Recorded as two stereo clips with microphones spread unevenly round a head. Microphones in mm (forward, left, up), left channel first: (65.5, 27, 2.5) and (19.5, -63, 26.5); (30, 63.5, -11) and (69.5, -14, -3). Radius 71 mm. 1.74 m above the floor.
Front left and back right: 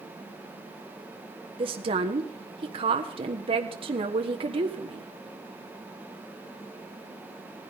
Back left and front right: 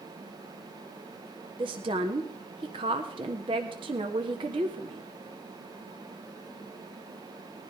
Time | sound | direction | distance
1.6 | a woman speaking | 100° right | 1.2 m